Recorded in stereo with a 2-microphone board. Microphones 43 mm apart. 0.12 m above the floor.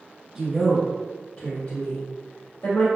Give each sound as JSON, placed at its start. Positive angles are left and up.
{"t": 0.3, "sound": "a woman speaking", "side_deg": -15, "distance_m": 1.7}